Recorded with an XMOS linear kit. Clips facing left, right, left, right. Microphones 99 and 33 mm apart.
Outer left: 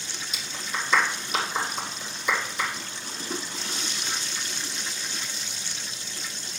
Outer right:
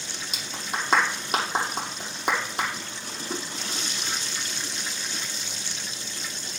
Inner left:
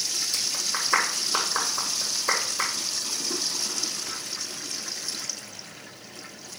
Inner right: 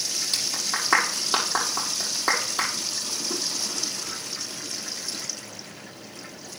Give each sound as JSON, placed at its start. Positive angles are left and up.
{"t": 0.3, "sound": "a clap", "side_deg": -75, "distance_m": 5.0}